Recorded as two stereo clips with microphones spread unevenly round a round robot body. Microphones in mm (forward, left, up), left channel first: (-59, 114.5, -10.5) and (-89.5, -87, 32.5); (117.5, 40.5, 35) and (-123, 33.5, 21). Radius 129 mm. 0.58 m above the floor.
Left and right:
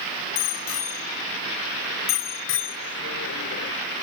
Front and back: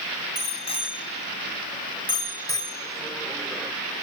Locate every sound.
0.3 s a bicycle bell: 65° left; by 3.7 s 100° left